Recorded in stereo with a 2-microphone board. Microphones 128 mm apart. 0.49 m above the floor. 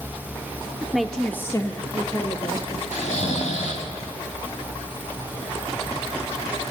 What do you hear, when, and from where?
0.8 s a woman speaking: 10° right (ahead or behind), 0.9 m; by 2.8 s 45° left (ahead or behind), 1.8 m
2.9 s snoring: 80° left, 2 m